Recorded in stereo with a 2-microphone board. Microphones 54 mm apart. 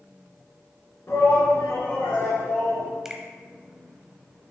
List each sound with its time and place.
1.1 s a shout: 55° left (ahead or behind), 3.5 m; by 2.9 s 65° left (ahead or behind), 4.5 m
3.0 s a finger snap: 10° right (ahead or behind), 0.8 m